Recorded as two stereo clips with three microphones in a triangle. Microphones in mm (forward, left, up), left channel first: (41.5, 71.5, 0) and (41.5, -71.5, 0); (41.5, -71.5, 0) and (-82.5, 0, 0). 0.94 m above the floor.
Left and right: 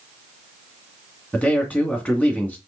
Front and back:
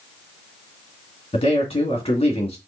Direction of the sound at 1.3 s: 10° left.